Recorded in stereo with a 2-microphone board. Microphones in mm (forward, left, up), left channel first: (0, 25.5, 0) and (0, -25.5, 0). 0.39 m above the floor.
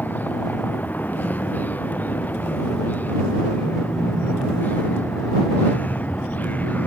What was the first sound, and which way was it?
A vehicle, 35° left (ahead or behind).